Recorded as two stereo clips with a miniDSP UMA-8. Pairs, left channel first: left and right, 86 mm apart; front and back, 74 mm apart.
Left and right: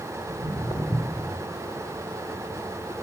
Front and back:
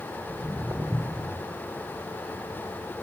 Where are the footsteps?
105° left, 2 m; by 1.3 s 150° left, 1.5 m.